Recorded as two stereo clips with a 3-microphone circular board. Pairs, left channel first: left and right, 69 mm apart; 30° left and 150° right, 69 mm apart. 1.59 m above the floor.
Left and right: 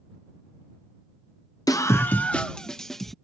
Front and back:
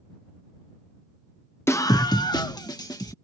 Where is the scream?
80° left; by 3.1 s 5° left.